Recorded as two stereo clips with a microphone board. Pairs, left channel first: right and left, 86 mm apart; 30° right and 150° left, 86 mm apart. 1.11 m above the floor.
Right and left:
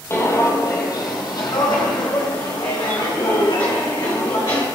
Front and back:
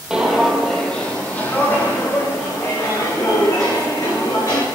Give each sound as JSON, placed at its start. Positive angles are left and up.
{"t": 0.1, "sound": "footsteps", "azimuth_deg": -130, "distance_m": 1.5}